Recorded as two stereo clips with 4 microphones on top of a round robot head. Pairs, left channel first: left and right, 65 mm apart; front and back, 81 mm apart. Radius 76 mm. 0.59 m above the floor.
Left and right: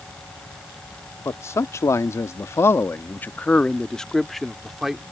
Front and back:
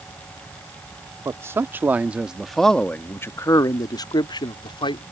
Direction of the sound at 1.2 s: 130° left.